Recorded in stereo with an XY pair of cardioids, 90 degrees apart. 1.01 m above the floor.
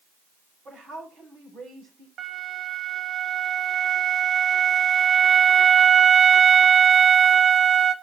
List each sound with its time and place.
0.7 s a woman speaking: 50° right, 9 m
2.2 s a flute: 60° right, 1.3 m